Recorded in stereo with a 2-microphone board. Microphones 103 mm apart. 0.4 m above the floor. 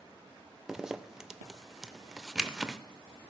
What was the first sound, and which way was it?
A zipper, 5° right (ahead or behind).